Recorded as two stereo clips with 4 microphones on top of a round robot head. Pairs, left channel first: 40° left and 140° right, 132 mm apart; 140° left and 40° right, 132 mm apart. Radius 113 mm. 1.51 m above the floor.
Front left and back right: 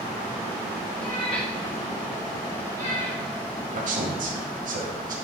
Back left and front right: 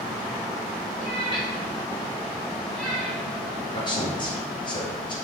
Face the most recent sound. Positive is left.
turn(degrees=-165)